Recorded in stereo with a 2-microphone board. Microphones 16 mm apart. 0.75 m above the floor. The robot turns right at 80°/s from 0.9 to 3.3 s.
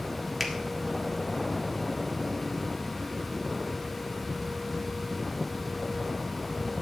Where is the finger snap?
Centre (ahead or behind), 1.5 m.